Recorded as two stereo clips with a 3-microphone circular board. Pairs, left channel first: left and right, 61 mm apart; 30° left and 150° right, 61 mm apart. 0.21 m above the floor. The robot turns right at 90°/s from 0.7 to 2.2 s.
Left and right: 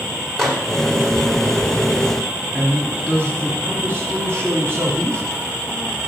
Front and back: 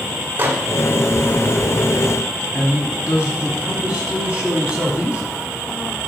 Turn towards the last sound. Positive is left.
turn(degrees=-90)